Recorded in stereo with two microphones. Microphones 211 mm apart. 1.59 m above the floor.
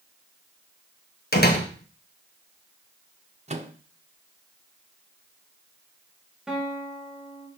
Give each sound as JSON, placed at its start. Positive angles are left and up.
{"t": 1.3, "sound": "a door slam", "side_deg": 50, "distance_m": 1.3}
{"t": 3.5, "sound": "a microwave", "side_deg": -30, "distance_m": 0.8}
{"t": 6.5, "sound": "a guitar", "side_deg": 0, "distance_m": 2.5}